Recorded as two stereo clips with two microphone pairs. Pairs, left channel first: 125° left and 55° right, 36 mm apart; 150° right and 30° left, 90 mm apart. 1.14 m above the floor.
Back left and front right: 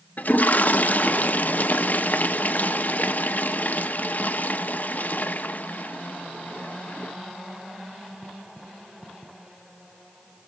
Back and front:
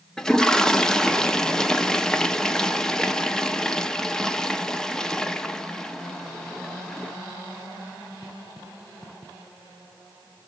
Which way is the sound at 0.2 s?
130° left.